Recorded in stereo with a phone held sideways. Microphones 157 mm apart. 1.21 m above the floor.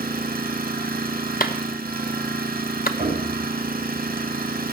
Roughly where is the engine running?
Right.